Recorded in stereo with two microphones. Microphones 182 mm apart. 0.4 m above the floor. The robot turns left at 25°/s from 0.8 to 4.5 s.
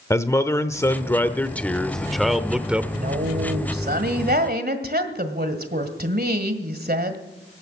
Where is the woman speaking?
65° right, 1.6 m; by 7.2 s 105° right, 1.6 m.